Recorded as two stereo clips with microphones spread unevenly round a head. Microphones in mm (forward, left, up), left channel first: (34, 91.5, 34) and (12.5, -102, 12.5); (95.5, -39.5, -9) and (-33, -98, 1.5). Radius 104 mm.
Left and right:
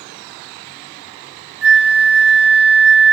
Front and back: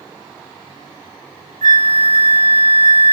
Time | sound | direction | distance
1.6 | a flute | 130° right | 1.2 m